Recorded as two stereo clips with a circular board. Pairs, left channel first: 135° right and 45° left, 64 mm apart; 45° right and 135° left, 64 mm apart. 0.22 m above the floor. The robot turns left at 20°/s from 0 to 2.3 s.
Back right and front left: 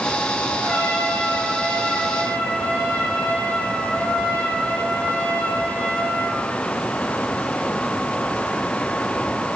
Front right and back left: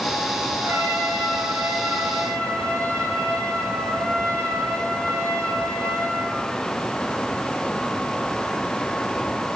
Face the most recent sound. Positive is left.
turn(degrees=145)